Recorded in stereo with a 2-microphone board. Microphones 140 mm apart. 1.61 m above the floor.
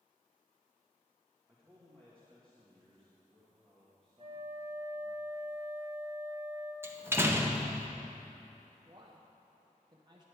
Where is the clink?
I don't hear a clink.